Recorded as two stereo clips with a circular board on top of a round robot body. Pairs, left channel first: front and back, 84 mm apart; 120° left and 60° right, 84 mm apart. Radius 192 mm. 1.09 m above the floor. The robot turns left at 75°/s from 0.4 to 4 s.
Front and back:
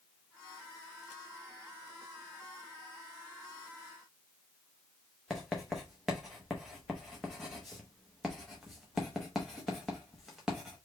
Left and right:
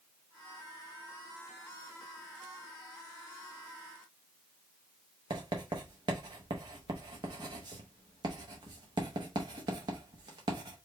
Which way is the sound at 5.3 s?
90° right.